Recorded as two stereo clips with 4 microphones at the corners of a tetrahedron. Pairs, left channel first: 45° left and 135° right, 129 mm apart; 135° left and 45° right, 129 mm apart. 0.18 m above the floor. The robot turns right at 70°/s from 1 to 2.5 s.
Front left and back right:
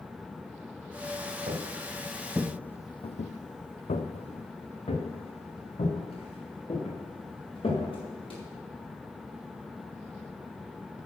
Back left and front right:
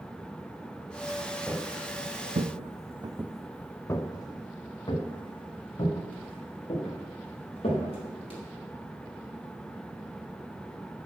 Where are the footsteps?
140° right, 1.6 m; by 8.4 s 90° left, 5.5 m.